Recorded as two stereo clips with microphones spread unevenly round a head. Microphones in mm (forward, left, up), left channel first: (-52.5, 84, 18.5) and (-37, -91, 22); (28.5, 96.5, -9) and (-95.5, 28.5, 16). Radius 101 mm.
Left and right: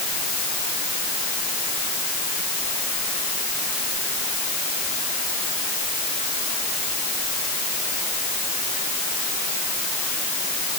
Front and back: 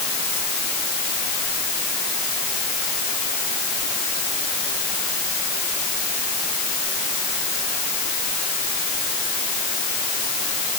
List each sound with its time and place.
Only background noise.